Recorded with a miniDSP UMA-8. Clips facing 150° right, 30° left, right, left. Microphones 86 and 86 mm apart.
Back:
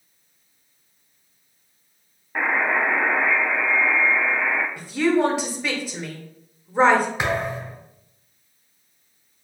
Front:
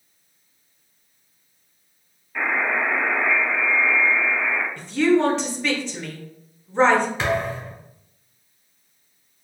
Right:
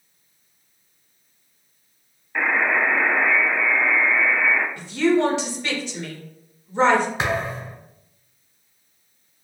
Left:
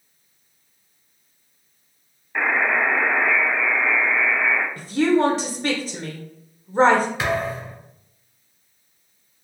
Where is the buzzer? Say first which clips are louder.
Back 1 dB, even; 175° left, 0.6 m.